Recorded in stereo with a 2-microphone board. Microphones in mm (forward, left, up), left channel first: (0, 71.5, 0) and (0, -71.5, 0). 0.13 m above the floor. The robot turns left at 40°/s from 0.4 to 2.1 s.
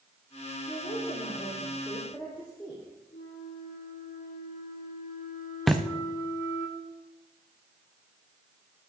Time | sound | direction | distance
0.7 | a woman speaking | 70° left | 4 m
3.1 | a flute | 70° left (ahead or behind) | 2.5 m
5.7 | a thud | centre (ahead or behind) | 1.2 m